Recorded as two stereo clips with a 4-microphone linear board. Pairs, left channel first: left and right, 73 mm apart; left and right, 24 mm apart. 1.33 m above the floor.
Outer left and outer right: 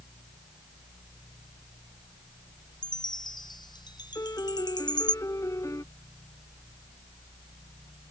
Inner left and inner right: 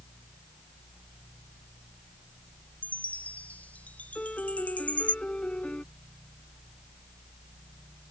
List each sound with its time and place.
2.8 s a chime: 75° left (ahead or behind)
4.2 s a piano: 45° left (ahead or behind)